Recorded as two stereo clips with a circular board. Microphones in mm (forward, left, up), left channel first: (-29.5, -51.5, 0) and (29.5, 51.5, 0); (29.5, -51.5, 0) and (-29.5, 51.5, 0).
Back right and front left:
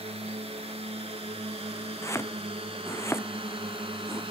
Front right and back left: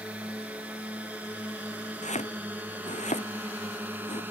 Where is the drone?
40° left; by 4.3 s 50° left.